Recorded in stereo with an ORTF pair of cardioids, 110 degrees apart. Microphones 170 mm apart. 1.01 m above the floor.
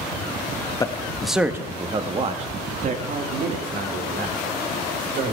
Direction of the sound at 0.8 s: 20° left.